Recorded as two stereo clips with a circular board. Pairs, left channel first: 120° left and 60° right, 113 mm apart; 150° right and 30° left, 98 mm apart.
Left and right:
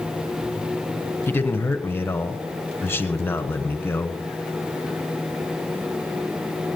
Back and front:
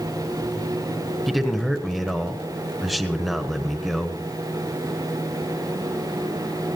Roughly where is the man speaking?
Behind left.